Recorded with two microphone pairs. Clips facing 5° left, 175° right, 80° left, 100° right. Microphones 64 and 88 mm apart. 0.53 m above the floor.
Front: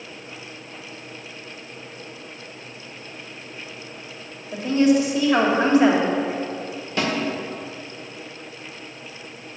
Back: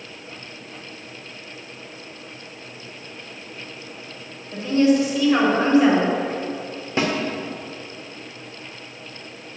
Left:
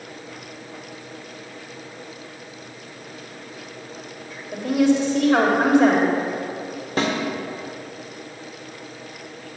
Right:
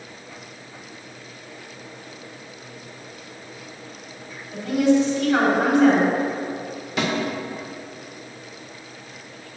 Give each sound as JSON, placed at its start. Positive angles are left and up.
{"t": 4.5, "sound": "a woman speaking", "azimuth_deg": 70, "distance_m": 2.5}
{"t": 7.0, "sound": "a snare drum", "azimuth_deg": 125, "distance_m": 1.8}